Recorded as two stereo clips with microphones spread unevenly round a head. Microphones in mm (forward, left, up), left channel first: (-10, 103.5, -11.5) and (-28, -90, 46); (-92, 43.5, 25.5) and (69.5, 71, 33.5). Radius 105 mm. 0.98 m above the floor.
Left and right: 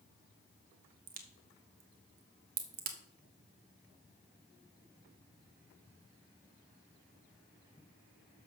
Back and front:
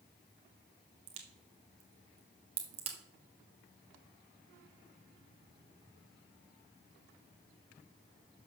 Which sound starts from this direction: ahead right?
A crack, at 1.1 s.